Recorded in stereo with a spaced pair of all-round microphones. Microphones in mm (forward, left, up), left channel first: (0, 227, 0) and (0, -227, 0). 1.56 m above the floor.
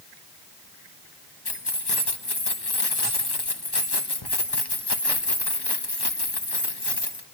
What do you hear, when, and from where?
1.4 s keys jangling: 60° left (ahead or behind), 1.3 m